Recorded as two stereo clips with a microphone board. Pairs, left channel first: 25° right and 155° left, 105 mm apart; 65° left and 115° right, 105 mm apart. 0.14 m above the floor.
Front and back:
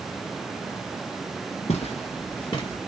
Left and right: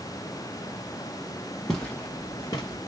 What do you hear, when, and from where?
1.7 s footsteps: 20° right, 1.5 m; by 2.8 s 25° left, 1.6 m